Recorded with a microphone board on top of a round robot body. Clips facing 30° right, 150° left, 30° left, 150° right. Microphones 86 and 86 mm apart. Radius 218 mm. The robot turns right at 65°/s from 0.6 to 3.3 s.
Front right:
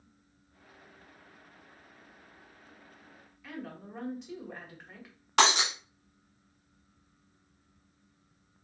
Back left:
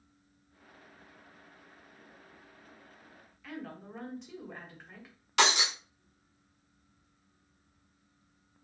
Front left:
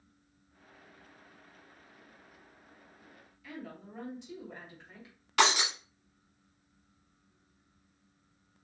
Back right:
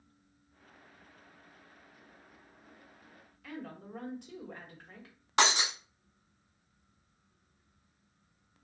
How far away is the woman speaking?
About 2 m.